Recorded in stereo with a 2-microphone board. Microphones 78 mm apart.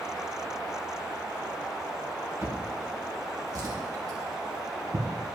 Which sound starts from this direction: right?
A drawer, at 2.4 s.